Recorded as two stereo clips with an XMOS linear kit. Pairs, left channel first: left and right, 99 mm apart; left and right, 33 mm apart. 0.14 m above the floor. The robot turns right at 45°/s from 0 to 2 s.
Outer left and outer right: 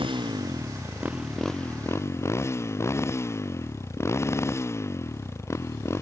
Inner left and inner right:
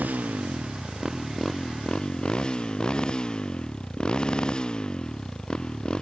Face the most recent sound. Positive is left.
turn(degrees=30)